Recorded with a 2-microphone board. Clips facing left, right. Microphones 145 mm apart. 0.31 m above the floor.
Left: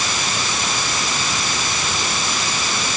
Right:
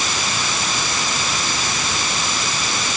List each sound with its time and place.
Only background noise.